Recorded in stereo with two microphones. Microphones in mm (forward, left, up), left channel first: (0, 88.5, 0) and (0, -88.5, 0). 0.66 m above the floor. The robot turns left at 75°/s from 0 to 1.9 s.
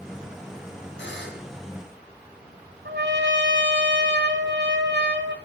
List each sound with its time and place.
1.0 s a buzzer: 95° left, 4 m; by 1.5 s 55° left, 4 m
2.9 s a trumpet: 80° right, 1.7 m